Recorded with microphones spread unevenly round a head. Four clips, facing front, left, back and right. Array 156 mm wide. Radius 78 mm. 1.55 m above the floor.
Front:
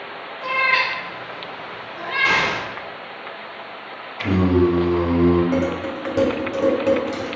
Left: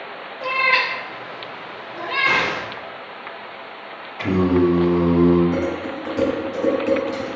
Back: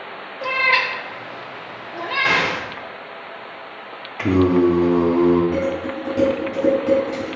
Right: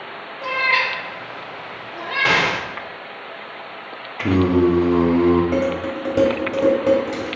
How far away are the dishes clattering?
About 3 m.